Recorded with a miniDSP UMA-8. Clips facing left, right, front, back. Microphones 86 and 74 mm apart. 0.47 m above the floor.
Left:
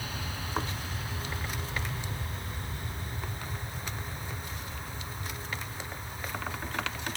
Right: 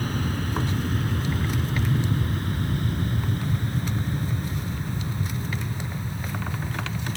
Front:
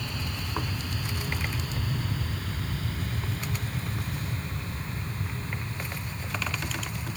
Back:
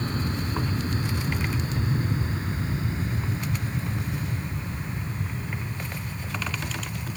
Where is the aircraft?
130° right; by 7.2 s 100° right.